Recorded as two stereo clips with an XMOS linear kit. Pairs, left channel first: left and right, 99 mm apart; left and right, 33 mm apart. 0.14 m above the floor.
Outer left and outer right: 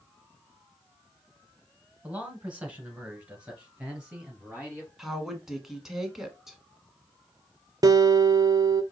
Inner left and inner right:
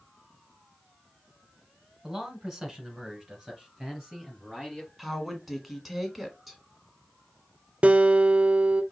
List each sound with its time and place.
2.0 s a man speaking: 15° right (ahead or behind), 1.5 m; by 4.9 s 10° right (ahead or behind), 3.5 m
5.0 s a woman speaking: 5° right (ahead or behind), 1.2 m
7.8 s a guitar: 40° right (ahead or behind), 0.6 m